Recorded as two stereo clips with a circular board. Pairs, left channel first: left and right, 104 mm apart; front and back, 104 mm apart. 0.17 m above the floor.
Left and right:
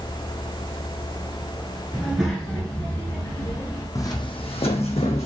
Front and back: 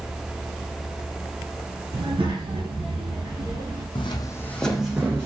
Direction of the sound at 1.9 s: 170° right.